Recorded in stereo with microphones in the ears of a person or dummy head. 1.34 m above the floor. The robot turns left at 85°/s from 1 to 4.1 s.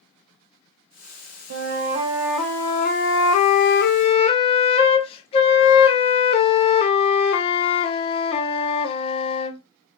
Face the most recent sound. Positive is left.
turn(degrees=30)